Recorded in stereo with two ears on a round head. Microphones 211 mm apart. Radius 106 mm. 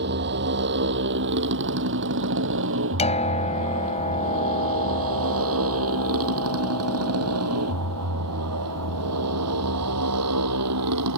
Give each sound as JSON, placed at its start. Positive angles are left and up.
{"t": 0.0, "sound": "a motorcycle", "side_deg": -50}
{"t": 3.0, "sound": "a piano", "side_deg": 25}